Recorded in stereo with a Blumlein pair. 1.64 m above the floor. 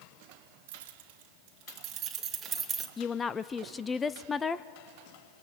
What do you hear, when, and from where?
0.7 s keys jangling: 55° right, 2.0 m; by 2.9 s 15° right, 1.6 m
3.0 s a woman speaking: 15° left, 0.5 m